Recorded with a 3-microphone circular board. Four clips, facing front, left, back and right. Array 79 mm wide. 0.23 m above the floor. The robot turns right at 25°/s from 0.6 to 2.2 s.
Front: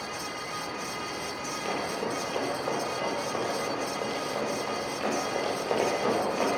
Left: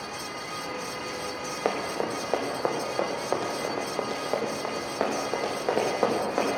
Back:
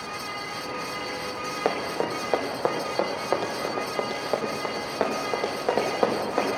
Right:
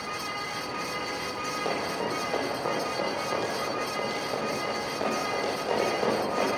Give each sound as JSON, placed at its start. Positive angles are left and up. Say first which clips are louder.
{"t": 1.6, "sound": "running footsteps", "louder": "left 3 dB, back 5 dB", "azimuth_deg": 140, "distance_m": 2.5}